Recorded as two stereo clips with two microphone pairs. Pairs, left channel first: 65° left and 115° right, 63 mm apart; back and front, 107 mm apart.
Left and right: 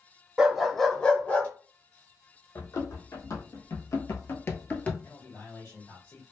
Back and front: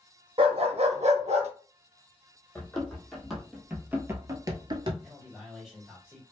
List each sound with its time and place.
0.4 s a dog barking: 40° right, 0.8 m; by 1.5 s 5° left, 0.8 m
2.5 s running footsteps: 100° left, 1.4 m; by 4.9 s straight ahead, 0.7 m
5.0 s a man speaking: 85° left, 1.6 m